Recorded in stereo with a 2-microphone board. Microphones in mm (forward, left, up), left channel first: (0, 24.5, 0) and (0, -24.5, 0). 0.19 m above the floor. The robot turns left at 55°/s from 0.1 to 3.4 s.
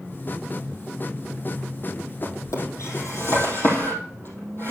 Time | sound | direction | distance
2.2 | a drawer | 65° left (ahead or behind) | 3.5 m